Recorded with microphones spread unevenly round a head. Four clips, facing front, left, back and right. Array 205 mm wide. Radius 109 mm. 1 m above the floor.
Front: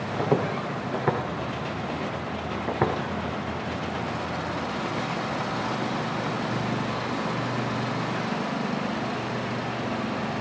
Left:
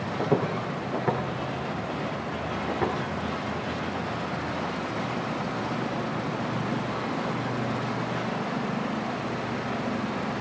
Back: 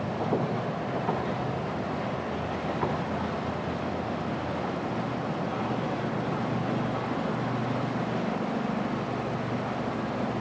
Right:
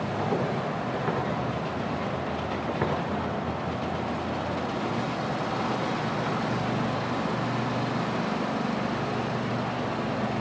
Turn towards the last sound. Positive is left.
turn(degrees=0)